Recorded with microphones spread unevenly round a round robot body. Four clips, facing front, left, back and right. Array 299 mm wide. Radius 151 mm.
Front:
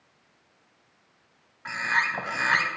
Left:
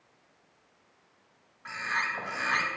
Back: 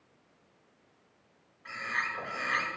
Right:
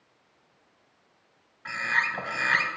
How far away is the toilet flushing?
No toilet flushing in this recording.